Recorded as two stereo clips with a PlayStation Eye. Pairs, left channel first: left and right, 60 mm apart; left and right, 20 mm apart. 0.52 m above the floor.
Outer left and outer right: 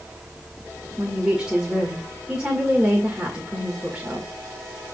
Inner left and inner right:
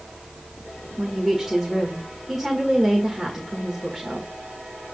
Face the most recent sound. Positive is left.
turn(degrees=-15)  # may be behind; listen again after turning